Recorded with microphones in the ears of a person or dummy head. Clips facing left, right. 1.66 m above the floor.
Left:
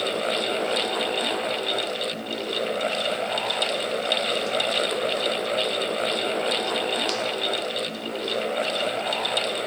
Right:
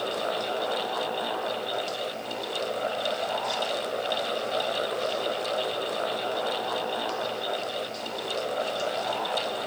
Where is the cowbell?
No cowbell in this recording.